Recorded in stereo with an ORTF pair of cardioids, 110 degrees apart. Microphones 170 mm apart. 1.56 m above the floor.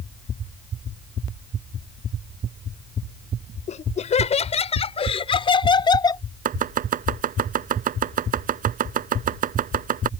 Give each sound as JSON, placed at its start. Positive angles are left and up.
{"t": 3.7, "sound": "laughter", "azimuth_deg": 45}
{"t": 6.5, "sound": "chopping", "azimuth_deg": -55}